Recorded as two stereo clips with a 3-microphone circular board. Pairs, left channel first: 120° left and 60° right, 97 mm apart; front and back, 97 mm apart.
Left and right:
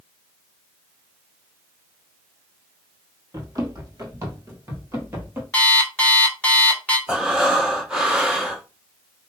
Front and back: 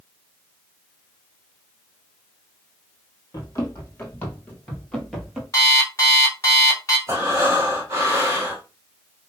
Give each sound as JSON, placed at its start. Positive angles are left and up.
{"t": 3.3, "sound": "running footsteps", "azimuth_deg": -35, "distance_m": 2.0}
{"t": 5.5, "sound": "an alarm clock", "azimuth_deg": 45, "distance_m": 1.2}
{"t": 7.1, "sound": "breathing", "azimuth_deg": -135, "distance_m": 1.4}